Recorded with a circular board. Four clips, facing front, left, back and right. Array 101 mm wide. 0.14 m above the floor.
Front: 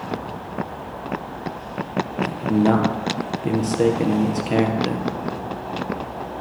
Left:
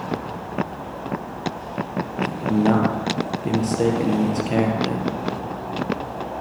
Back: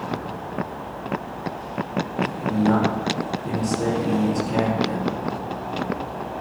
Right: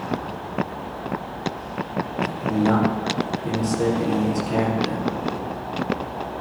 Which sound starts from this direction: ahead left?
A man speaking, at 2.3 s.